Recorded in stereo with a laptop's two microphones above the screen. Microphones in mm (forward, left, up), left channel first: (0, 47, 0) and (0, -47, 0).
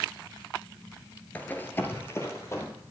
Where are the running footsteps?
15° left (ahead or behind), 1.1 m; by 2.7 s 30° left (ahead or behind), 2 m.